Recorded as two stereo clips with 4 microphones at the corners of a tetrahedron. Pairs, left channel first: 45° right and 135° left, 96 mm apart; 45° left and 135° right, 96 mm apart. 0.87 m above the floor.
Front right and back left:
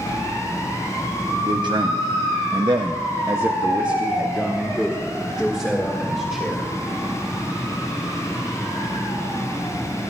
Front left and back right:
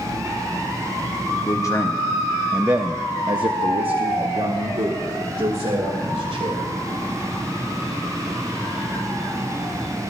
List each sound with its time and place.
1.5 s a man speaking: 95° left, 0.8 m; by 6.7 s 130° right, 2.5 m